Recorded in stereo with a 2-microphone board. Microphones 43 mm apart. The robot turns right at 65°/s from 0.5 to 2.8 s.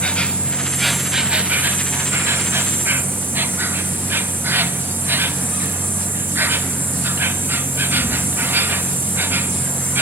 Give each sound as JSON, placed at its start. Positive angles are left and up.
{"t": 0.0, "sound": "an insect", "azimuth_deg": 155, "distance_m": 1.0}